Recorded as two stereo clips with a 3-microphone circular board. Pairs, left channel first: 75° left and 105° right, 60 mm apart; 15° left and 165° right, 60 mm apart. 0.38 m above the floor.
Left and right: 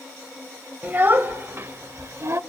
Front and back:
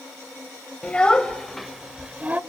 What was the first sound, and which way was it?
A child speaking, 50° right.